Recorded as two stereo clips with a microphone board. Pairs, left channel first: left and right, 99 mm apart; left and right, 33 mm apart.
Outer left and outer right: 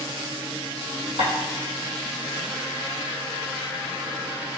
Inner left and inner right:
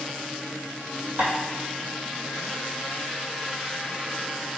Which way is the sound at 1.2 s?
70° right (ahead or behind).